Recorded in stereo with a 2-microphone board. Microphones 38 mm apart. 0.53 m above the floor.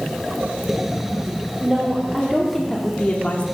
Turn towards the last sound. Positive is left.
turn(degrees=40)  # may be behind; listen again after turning